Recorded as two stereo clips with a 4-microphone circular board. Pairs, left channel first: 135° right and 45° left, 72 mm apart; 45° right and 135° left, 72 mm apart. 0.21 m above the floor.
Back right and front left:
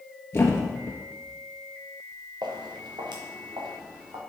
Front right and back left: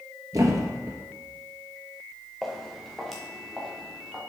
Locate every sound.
0.3 s a thud: 170° left, 1.3 m
2.4 s footsteps: 45° left, 1.8 m; by 4.2 s 50° left, 3 m